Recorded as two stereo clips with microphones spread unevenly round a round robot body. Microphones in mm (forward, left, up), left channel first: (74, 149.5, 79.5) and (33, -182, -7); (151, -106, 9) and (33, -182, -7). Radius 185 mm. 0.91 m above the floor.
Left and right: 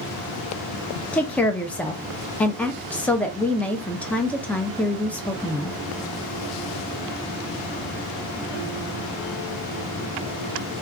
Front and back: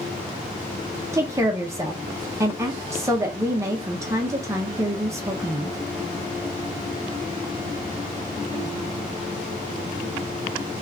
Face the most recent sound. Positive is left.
turn(degrees=-165)